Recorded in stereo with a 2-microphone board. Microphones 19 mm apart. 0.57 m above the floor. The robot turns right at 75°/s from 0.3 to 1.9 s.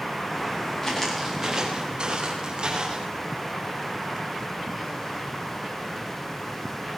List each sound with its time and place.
0.8 s footsteps: 30° left (ahead or behind), 5 m; by 3.1 s 45° right (ahead or behind), 6.5 m